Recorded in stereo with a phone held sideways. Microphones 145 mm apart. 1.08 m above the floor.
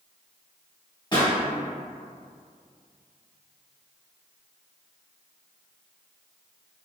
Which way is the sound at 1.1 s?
30° left (ahead or behind).